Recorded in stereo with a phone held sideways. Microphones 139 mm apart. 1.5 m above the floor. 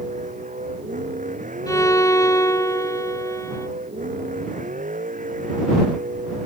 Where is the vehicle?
65° right (ahead or behind); by 6.5 s 70° right (ahead or behind).